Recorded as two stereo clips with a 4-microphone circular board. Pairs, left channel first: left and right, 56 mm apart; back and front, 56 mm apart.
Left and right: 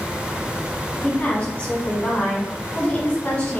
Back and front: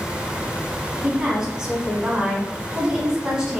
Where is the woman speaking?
55° left, 1.5 m.